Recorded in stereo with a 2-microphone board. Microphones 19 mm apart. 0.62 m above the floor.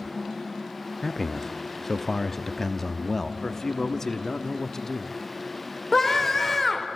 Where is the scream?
10° left (ahead or behind), 2 m.